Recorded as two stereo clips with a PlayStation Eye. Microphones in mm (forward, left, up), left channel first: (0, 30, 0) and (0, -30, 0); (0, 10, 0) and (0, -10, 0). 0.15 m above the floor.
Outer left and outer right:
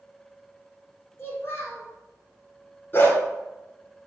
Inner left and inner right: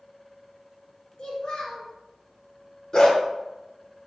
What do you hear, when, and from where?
1.2 s a child speaking: 40° left (ahead or behind), 1.3 m
2.9 s a dog barking: 35° left (ahead or behind), 0.9 m